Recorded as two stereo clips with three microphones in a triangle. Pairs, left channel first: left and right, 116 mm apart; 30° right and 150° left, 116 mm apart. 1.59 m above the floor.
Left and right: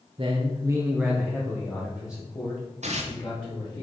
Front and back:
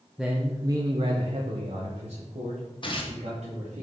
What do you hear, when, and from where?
0.2 s a man speaking: 120° right, 0.9 m; by 3.8 s 140° left, 3 m
2.8 s tearing paper: 75° right, 1.2 m